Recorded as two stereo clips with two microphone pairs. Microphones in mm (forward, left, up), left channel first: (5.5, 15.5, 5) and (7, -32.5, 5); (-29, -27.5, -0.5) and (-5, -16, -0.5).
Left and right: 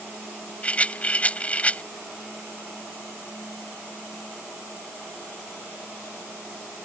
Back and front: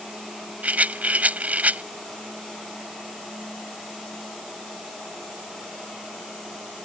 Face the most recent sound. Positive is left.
turn(degrees=30)